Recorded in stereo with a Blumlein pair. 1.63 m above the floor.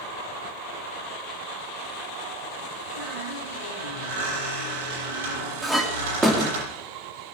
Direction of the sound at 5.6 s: 5° right.